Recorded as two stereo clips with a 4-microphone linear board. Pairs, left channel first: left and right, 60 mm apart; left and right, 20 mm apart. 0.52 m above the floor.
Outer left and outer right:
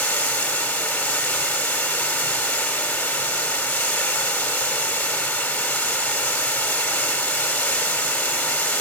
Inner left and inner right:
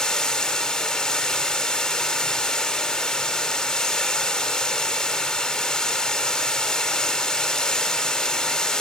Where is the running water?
25° left (ahead or behind), 2.5 m.